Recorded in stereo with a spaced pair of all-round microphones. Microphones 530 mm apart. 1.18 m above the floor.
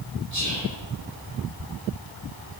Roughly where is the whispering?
Left.